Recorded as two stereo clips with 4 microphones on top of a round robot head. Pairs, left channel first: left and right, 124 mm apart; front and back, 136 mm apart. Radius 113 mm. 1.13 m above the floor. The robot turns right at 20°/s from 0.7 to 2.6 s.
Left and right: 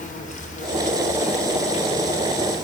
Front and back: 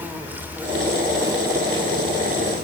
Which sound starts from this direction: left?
An insect, at 0.0 s.